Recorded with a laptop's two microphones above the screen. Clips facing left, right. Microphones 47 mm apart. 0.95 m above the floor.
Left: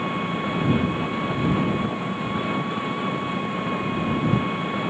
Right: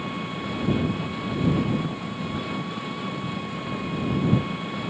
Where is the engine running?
25° left (ahead or behind).